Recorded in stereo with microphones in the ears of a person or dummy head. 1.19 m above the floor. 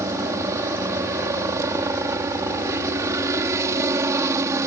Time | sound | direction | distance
0.0 | a helicopter | 15° right (ahead or behind) | ?